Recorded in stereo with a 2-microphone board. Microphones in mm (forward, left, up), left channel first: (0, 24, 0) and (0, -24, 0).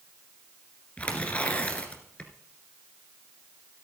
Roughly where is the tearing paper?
Left.